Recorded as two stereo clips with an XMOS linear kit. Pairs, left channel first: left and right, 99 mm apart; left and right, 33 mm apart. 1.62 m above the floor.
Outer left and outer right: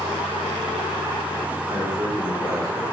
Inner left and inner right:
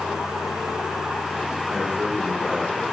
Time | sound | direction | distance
1.7 | a man speaking | 40° right (ahead or behind) | 5.5 m